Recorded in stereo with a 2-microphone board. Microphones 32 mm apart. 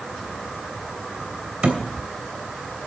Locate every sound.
1.6 s a thud: 40° right (ahead or behind), 3 m